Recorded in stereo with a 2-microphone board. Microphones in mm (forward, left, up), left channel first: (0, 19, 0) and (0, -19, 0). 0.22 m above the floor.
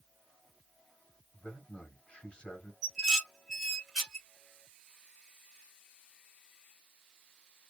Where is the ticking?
I don't hear ticking.